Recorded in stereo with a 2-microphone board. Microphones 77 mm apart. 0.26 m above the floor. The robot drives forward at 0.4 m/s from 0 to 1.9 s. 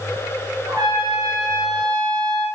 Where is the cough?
I don't hear a cough.